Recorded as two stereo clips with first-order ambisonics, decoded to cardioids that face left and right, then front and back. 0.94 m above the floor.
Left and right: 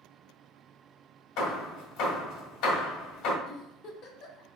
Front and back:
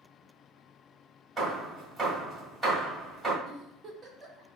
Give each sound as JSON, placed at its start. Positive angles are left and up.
{"t": 1.4, "sound": "hammering", "azimuth_deg": 100, "distance_m": 1.5}
{"t": 3.5, "sound": "a giggle", "azimuth_deg": 115, "distance_m": 0.8}